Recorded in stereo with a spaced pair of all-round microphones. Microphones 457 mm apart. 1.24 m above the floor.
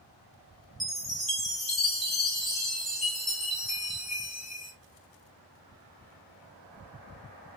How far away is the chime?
About 1.2 m.